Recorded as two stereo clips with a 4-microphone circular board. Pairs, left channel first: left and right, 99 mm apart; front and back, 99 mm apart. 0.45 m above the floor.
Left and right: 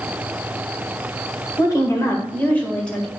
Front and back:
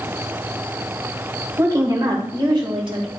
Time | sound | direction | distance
1.6 | a woman speaking | 130° left | 1.8 m